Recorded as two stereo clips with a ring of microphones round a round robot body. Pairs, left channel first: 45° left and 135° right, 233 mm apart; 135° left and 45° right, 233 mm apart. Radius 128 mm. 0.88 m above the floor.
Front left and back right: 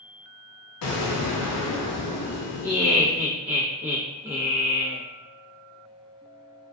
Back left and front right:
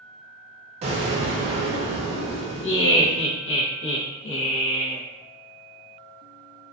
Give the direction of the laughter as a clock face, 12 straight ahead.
7 o'clock.